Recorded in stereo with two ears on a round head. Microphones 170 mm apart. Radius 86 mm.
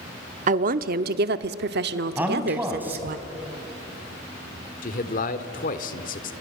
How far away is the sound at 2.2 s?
About 3.5 m.